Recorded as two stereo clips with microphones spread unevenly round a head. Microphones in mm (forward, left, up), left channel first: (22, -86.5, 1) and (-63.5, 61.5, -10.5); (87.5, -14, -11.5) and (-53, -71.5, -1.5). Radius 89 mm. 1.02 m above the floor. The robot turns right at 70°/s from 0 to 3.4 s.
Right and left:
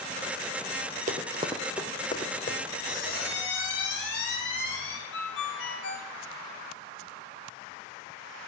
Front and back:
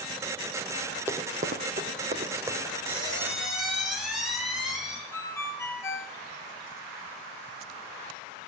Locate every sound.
1.1 s running footsteps: 135° left, 1.3 m; by 2.6 s 85° right, 3 m
2.9 s a squeak: 110° right, 4 m; by 5.0 s 70° right, 4 m
5.1 s a ringtone: 55° right, 1.9 m